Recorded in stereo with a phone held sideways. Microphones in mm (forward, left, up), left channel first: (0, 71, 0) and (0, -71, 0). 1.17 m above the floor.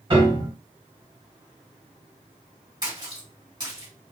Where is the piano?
35° right (ahead or behind), 1.4 m.